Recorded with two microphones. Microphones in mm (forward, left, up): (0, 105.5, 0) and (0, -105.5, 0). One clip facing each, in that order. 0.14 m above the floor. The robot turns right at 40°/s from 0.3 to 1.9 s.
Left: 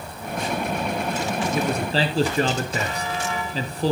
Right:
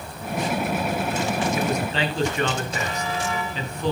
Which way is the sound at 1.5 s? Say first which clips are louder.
Left 1 dB; 30° left (ahead or behind).